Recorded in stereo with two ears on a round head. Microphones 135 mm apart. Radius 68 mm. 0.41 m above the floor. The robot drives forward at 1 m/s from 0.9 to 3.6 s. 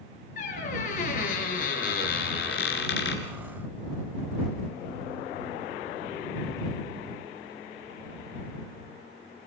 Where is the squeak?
55° left (ahead or behind), 5 m; by 3.2 s 75° left (ahead or behind), 4.5 m.